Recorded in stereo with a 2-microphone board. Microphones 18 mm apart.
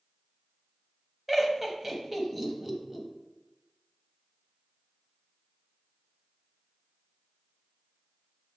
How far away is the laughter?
About 1.3 m.